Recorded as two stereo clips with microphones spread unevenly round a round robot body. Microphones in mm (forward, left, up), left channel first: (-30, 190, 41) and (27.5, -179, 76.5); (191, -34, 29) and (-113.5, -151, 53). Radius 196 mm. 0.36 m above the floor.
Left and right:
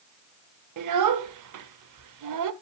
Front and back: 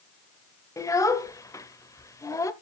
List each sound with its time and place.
0.8 s a child speaking: 55° right, 1.4 m